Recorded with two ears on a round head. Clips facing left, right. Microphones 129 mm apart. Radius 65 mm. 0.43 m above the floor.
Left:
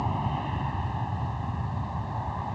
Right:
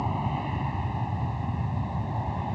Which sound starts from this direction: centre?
An aircraft, at 0.0 s.